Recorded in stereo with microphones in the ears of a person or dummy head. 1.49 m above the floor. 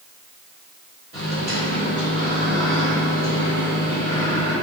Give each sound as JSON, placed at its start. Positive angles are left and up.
{"t": 1.1, "sound": "a microwave", "side_deg": -50, "distance_m": 1.9}